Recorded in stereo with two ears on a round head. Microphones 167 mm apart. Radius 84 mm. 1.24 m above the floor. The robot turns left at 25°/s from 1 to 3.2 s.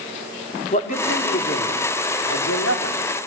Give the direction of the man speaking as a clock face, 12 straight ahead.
7 o'clock.